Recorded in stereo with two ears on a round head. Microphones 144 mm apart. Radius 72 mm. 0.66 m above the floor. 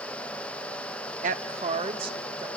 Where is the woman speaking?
50° right (ahead or behind), 0.8 m; by 2.5 s 30° right (ahead or behind), 2 m.